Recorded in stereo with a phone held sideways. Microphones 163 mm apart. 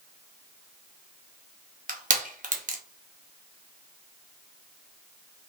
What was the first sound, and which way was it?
Crushing, 50° right (ahead or behind).